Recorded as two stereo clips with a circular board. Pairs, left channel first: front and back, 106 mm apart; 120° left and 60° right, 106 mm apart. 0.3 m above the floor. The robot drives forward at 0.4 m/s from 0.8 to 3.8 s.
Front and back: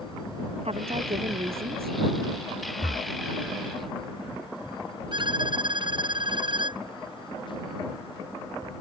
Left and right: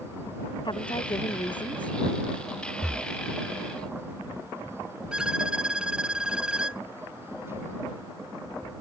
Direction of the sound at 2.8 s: 150° right.